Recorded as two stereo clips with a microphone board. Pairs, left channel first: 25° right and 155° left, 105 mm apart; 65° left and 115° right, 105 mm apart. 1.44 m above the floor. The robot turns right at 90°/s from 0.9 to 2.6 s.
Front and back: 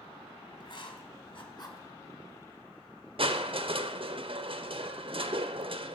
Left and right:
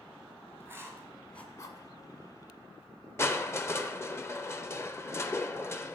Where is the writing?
50° right, 2 m; by 1.9 s 35° left, 2 m.